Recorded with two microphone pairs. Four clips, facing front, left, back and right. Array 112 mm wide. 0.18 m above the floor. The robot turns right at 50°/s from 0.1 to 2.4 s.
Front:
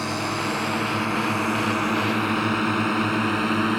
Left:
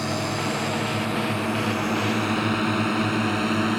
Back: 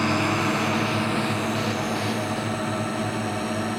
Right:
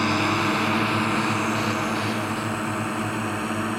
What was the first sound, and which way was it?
A drone, 100° right.